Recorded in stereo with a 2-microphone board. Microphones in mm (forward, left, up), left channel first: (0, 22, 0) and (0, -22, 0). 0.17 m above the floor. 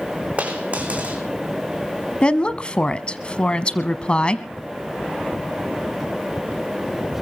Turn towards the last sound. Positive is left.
turn(degrees=25)  # may be behind; listen again after turning